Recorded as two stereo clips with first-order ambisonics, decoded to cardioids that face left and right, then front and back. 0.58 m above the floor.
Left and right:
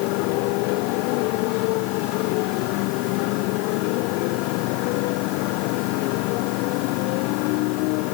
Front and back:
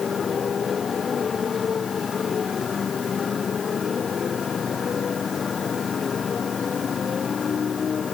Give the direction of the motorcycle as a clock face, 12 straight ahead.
10 o'clock.